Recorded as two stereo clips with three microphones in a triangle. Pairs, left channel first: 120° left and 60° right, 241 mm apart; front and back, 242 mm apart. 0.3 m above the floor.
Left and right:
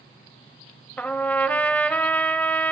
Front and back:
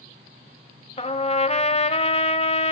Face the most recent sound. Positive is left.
turn(degrees=40)